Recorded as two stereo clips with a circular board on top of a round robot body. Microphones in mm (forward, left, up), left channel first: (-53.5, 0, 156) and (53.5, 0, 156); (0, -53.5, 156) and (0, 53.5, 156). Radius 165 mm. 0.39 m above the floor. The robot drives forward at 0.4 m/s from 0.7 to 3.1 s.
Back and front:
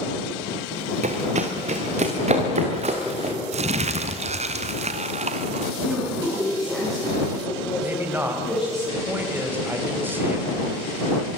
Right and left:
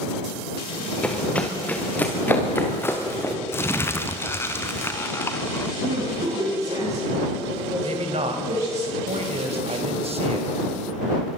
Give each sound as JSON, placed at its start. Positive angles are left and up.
{"t": 1.0, "sound": "running footsteps", "azimuth_deg": -10, "distance_m": 2.5}
{"t": 3.5, "sound": "crumpling", "azimuth_deg": -20, "distance_m": 0.8}
{"t": 5.8, "sound": "a woman speaking", "azimuth_deg": 95, "distance_m": 7.0}
{"t": 7.8, "sound": "a man speaking", "azimuth_deg": 70, "distance_m": 3.5}